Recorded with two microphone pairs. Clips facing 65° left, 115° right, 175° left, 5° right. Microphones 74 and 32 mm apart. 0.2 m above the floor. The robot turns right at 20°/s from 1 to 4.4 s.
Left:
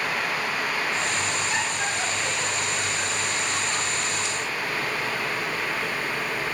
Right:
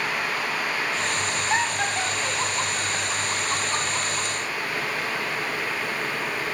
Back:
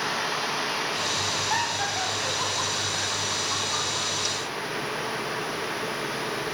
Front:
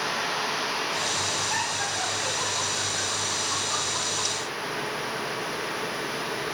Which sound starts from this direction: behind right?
Laughter, at 1.5 s.